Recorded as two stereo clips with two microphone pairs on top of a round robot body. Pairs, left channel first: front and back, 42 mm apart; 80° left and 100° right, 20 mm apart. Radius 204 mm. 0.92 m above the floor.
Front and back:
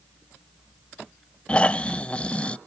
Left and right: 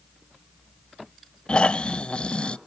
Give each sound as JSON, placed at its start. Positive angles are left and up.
{"t": 1.5, "sound": "snoring", "azimuth_deg": 60, "distance_m": 0.6}